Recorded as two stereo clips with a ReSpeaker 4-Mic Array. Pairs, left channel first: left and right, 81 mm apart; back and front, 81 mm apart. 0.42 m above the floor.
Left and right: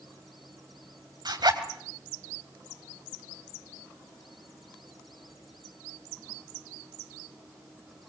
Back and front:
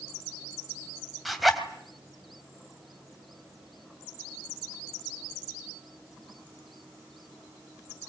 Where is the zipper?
90° right, 2.5 m.